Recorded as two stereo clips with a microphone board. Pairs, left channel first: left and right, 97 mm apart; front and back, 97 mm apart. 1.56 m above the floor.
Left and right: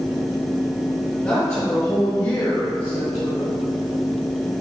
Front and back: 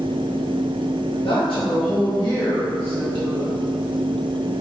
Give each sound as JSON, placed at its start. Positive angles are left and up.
{"t": 1.2, "sound": "a woman speaking", "azimuth_deg": 20, "distance_m": 1.3}